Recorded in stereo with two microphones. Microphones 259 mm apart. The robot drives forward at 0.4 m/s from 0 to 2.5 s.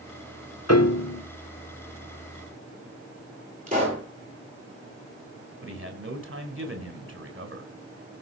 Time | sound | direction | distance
0.7 | a piano | 70° left (ahead or behind) | 1.7 m
3.7 | a pop | 30° right (ahead or behind) | 9.5 m
5.6 | a man speaking | 50° right (ahead or behind) | 3.5 m